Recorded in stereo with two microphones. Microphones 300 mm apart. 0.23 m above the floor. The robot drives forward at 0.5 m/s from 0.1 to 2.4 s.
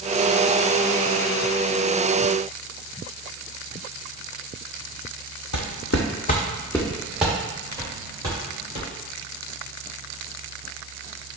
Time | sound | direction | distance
5.5 | footsteps | 70° left (ahead or behind) | 0.6 m